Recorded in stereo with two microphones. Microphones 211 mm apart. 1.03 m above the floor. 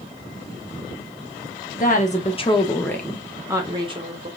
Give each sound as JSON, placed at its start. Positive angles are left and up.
{"t": 1.8, "sound": "a woman speaking", "side_deg": 40, "distance_m": 1.1}